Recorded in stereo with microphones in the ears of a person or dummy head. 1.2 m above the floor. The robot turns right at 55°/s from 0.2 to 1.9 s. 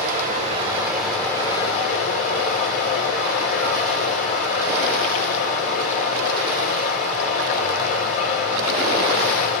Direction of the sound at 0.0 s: 50° right.